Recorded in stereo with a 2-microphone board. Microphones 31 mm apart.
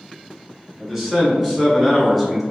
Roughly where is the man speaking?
Centre.